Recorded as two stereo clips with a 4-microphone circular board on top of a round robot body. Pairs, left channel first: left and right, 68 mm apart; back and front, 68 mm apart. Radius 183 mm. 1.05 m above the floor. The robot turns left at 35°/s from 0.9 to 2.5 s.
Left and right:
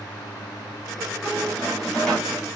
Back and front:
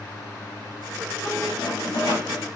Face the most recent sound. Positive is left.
turn(degrees=165)